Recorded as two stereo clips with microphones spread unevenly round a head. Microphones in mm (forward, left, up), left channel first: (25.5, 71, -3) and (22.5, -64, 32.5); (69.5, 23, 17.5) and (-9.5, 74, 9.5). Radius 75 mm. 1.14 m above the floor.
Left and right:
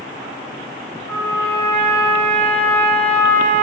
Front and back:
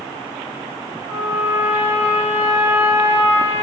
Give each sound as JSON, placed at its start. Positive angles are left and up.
{"t": 1.1, "sound": "a trumpet", "azimuth_deg": 175, "distance_m": 3.0}